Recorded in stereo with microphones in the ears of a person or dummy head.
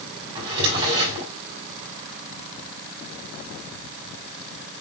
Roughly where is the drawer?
Right.